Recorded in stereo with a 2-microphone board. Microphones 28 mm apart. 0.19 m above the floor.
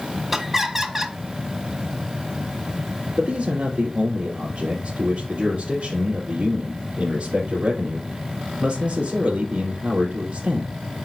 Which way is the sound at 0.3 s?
5° right (ahead or behind).